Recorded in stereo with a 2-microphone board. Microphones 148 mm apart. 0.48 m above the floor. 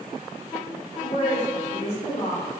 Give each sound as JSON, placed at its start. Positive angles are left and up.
{"t": 1.0, "sound": "a woman speaking", "side_deg": 45, "distance_m": 1.5}